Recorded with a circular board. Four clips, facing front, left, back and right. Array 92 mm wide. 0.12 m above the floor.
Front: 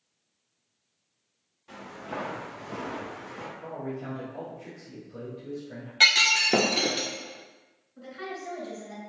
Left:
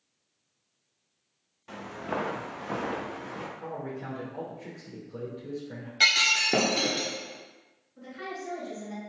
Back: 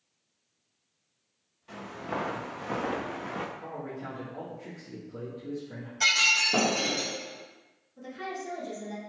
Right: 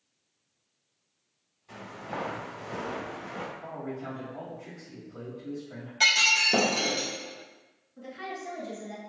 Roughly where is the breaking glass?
Ahead.